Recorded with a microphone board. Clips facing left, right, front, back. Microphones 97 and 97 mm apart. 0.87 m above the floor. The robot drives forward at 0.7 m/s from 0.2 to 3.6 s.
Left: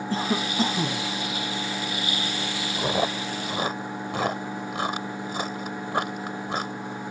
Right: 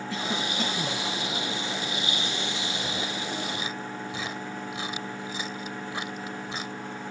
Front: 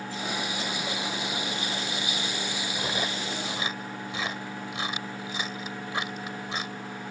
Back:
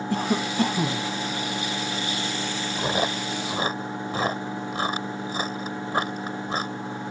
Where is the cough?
145° left; by 1.1 s 150° left.